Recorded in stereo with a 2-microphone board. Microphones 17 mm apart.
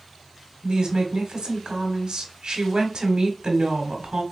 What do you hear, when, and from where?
0.6 s a woman speaking: 60° right (ahead or behind), 1.7 m